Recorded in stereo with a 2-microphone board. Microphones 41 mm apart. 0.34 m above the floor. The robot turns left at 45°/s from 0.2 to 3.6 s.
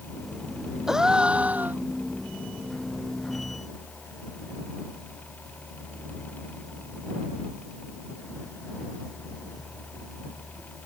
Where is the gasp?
10° right; by 1.8 s 55° right.